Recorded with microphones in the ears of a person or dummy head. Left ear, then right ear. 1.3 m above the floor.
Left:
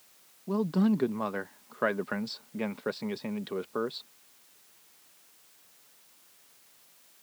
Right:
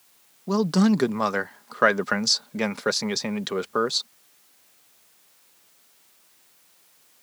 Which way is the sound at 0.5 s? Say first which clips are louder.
Right 7 dB; 80° right.